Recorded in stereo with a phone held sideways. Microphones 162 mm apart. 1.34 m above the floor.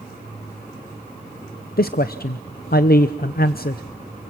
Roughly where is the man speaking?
Left.